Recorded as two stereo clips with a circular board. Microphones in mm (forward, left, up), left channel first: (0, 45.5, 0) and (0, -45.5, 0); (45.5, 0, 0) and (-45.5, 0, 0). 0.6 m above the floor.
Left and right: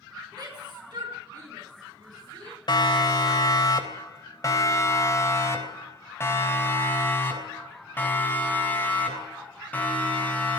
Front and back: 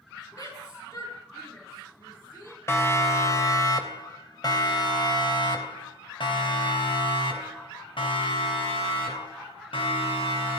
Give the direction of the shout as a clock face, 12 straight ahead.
2 o'clock.